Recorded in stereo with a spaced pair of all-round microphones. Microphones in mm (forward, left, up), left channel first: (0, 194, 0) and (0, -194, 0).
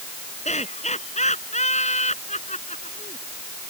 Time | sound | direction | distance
0.5 | laughter | 20° left (ahead or behind) | ?